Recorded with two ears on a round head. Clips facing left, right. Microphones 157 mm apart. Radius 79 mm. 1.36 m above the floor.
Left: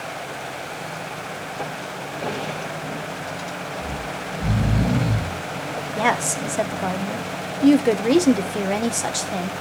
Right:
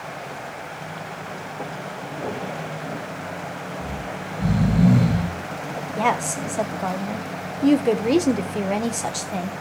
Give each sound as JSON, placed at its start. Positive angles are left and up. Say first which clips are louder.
{"t": 3.8, "sound": "snoring", "louder": "left 1 dB", "side_deg": -35, "distance_m": 7.0}
{"t": 6.0, "sound": "a woman speaking", "louder": "even", "side_deg": 5, "distance_m": 1.1}